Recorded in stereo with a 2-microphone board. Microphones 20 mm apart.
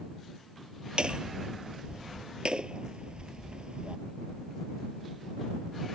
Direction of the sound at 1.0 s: 50° right (ahead or behind).